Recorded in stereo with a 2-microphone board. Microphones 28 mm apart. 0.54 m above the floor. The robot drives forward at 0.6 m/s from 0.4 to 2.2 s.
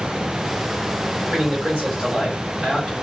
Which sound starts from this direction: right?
A man speaking, at 1.3 s.